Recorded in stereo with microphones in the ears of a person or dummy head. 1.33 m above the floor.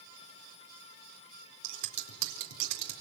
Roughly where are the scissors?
Right.